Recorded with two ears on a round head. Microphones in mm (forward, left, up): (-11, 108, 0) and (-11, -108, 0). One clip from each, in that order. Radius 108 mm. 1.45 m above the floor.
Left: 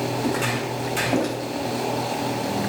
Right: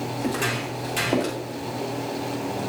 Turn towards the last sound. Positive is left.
turn(degrees=-20)  # may be behind; listen again after turning